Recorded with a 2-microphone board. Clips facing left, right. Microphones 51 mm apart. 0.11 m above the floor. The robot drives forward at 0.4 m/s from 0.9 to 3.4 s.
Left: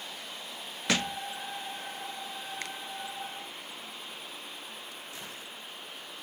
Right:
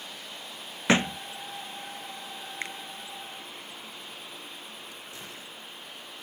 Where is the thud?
30° right (ahead or behind).